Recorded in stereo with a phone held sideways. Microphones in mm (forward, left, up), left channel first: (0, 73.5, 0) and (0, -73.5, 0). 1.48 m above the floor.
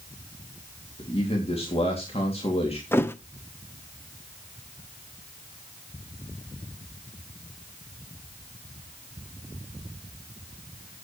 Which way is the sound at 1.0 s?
45° left (ahead or behind).